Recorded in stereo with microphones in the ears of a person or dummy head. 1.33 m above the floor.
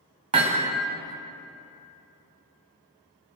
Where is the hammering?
30° right (ahead or behind), 2.5 m.